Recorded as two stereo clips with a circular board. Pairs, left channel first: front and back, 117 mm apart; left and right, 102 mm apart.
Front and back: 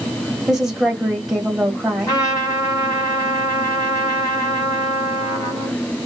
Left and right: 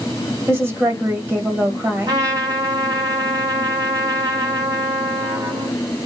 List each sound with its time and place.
0.5 s a woman speaking: 100° right, 1.2 m
2.1 s a trumpet: 45° right, 1.8 m